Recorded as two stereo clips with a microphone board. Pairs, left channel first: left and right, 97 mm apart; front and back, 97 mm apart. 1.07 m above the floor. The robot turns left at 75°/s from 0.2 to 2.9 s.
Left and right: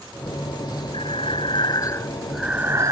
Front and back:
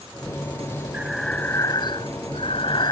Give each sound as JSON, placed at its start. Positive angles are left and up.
{"t": 0.9, "sound": "breathing", "azimuth_deg": 105}